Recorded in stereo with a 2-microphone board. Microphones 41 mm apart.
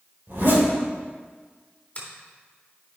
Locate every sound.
0.3 s a zipper: 60° right (ahead or behind), 2.5 m
1.9 s a finger snap: 30° left (ahead or behind), 3 m